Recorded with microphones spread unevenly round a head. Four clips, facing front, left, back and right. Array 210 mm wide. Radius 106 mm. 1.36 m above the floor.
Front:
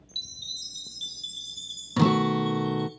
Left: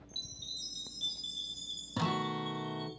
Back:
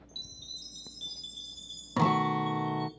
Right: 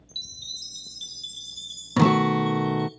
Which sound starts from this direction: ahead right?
A guitar, at 2.0 s.